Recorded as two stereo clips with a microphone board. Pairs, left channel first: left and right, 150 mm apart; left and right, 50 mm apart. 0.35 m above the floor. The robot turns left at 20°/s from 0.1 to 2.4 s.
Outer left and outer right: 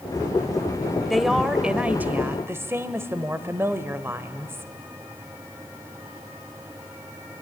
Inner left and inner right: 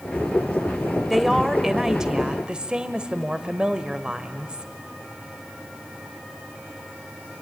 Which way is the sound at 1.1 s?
Centre (ahead or behind).